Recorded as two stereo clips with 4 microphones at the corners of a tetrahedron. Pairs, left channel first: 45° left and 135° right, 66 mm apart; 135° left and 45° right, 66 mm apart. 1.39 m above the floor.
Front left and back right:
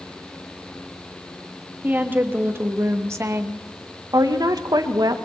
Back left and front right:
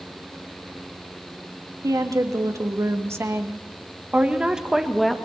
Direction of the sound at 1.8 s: 75° right.